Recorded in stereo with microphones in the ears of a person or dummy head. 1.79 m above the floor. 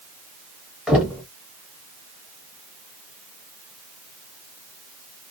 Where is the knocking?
Centre (ahead or behind), 0.9 m.